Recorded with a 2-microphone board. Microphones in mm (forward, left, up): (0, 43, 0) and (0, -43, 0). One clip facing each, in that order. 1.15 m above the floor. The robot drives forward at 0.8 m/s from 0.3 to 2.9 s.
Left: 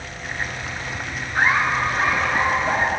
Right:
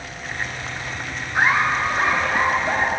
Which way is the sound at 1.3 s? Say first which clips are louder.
Even; 10° right (ahead or behind).